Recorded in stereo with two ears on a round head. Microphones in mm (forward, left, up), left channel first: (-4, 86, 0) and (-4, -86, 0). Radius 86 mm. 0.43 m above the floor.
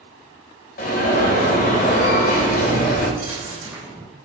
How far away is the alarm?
About 1.7 m.